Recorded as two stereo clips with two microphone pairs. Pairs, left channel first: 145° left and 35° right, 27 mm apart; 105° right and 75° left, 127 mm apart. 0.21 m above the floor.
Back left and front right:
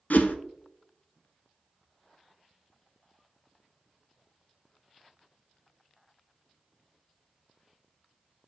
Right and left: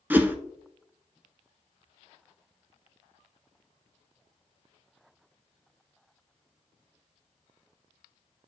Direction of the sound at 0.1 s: 155° left.